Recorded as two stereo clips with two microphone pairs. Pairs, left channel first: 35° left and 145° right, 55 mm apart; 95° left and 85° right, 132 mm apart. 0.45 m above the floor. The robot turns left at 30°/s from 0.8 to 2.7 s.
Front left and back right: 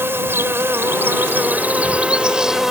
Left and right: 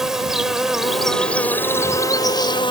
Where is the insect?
170° right; by 2.7 s 130° left.